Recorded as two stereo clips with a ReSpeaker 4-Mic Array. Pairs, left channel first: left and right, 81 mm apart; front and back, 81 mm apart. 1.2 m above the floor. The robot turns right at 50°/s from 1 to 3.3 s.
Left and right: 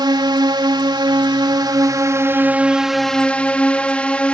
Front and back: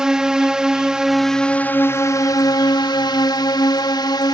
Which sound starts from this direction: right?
A drone, at 0.0 s.